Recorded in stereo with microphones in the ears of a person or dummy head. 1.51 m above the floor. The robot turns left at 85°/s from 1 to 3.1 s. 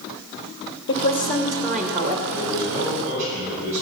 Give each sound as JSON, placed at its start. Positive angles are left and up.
{"t": 0.9, "sound": "a woman speaking", "azimuth_deg": 65, "distance_m": 1.2}
{"t": 2.3, "sound": "a man speaking", "azimuth_deg": 30, "distance_m": 6.5}